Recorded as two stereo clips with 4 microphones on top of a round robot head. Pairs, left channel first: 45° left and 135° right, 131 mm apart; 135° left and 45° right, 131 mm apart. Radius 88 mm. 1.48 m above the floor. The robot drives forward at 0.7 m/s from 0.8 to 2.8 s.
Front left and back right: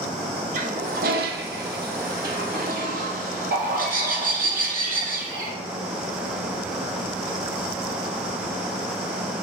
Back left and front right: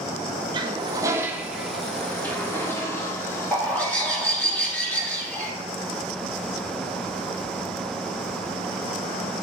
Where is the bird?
145° right, 3 m.